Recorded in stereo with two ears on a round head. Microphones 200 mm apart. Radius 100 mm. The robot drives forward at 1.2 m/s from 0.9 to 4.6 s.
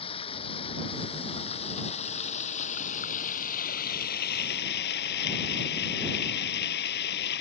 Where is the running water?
25° left (ahead or behind); by 7.4 s 45° left (ahead or behind).